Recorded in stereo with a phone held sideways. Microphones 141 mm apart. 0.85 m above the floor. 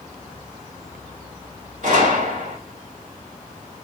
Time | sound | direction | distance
1.8 | a gunshot | 60° right (ahead or behind) | 2.5 m